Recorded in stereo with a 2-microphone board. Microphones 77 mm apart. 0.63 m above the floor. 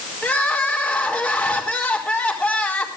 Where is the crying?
15° left (ahead or behind), 4.5 m.